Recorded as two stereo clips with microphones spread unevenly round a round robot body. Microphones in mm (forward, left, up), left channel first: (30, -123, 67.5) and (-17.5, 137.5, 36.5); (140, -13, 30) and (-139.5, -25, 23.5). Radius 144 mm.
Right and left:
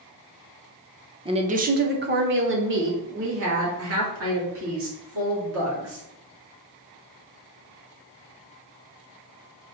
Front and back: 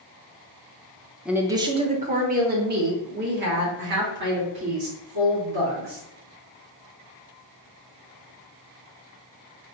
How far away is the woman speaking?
About 0.6 m.